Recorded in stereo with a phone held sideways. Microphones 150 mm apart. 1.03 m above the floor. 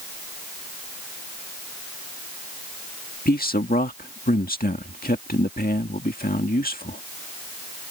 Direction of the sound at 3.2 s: 80° left.